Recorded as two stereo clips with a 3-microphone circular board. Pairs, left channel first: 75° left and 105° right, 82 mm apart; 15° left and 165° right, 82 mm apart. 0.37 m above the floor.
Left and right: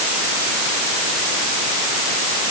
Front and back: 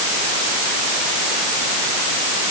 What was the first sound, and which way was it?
Only background noise.